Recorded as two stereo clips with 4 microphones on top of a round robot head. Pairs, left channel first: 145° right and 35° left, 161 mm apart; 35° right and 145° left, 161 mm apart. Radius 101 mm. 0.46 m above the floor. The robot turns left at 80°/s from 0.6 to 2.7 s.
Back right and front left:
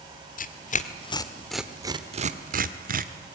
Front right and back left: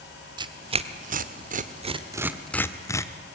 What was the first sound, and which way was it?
Tearing paper, 160° right.